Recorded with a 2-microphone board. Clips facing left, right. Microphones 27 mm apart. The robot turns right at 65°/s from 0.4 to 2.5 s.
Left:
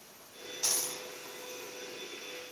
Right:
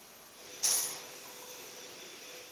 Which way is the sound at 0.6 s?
35° left (ahead or behind).